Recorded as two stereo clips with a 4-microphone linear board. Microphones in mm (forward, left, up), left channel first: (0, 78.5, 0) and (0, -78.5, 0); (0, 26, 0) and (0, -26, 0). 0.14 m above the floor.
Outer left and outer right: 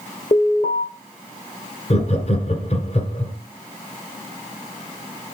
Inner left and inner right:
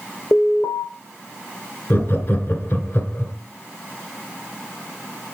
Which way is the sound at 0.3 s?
65° left (ahead or behind).